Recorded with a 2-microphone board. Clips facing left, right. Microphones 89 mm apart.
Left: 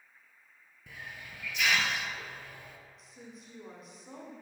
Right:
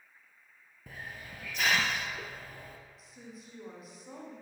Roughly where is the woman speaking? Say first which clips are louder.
Right 1 dB; centre.